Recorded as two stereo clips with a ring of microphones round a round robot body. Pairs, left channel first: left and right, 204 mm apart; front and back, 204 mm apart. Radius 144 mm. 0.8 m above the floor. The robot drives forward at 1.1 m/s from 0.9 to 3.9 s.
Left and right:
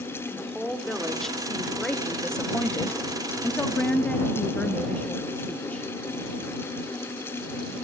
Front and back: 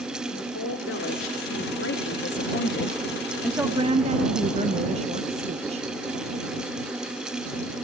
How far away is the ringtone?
No ringtone in this recording.